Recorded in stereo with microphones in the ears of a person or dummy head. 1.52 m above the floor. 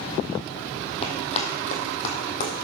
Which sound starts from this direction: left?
Running footsteps, at 1.0 s.